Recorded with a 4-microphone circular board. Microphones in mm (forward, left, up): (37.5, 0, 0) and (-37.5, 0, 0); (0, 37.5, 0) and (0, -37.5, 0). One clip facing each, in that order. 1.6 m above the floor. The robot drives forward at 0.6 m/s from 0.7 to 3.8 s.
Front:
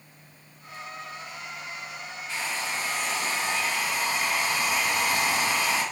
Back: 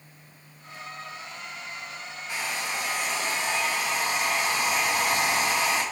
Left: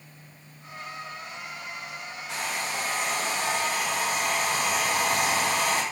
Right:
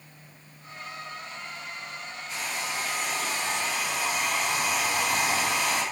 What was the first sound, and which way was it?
A hair dryer, 105° left.